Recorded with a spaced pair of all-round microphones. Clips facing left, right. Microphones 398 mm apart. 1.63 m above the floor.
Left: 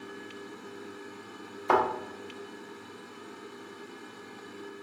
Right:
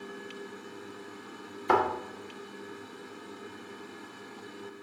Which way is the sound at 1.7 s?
30° right (ahead or behind).